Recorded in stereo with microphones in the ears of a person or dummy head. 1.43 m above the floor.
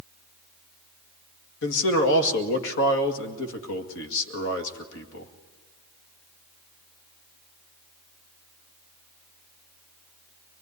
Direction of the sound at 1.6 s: 70° left (ahead or behind).